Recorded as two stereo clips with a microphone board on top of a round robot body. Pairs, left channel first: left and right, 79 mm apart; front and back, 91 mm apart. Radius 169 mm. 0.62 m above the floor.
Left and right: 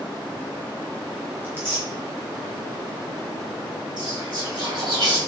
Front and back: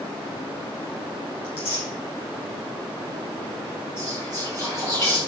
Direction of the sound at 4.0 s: 55° right.